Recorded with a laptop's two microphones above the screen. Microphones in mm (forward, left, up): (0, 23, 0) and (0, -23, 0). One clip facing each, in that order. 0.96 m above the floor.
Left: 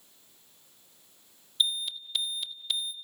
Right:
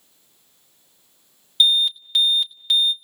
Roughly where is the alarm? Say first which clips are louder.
Right 12 dB; right.